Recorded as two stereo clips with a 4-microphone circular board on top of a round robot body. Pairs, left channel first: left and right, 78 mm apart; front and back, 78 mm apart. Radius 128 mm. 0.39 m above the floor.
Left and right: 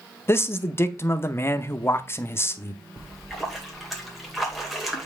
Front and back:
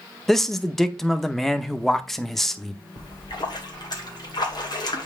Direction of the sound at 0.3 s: 85° left.